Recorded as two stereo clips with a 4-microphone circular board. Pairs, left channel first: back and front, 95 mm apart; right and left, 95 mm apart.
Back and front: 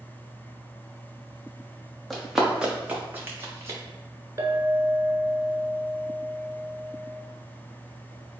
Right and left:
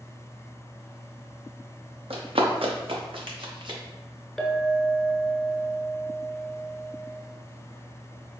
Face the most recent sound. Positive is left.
turn(degrees=0)